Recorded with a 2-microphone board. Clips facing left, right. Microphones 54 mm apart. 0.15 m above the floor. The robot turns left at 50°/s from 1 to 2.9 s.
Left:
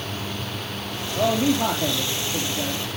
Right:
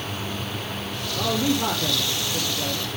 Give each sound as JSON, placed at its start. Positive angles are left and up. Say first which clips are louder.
{"t": 1.1, "sound": "a man speaking", "louder": "left 3 dB", "azimuth_deg": 125, "distance_m": 3.5}